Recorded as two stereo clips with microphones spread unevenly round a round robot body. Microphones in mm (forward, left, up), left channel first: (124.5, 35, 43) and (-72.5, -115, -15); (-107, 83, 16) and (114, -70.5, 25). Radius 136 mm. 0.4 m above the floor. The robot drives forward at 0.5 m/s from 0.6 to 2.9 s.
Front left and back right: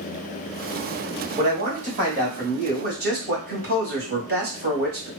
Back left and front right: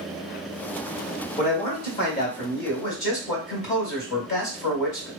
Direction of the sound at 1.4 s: 170° right.